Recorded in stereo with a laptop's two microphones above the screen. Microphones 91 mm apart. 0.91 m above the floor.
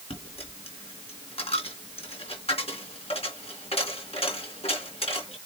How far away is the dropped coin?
About 4 m.